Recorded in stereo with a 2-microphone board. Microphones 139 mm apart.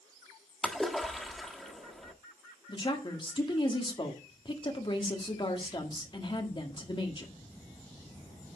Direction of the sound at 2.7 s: 35° left (ahead or behind).